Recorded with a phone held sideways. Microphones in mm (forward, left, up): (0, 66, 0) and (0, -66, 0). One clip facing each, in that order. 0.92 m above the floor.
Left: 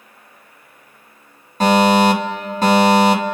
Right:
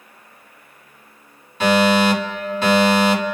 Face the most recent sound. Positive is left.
turn(degrees=40)  # may be behind; listen again after turning